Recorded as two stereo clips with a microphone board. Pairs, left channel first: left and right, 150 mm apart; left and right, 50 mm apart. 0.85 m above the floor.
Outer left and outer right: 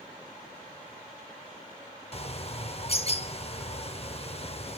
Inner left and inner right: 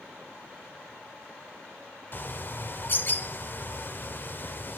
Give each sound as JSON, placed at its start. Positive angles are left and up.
{"t": 2.1, "sound": "a bird", "side_deg": 45, "distance_m": 0.7}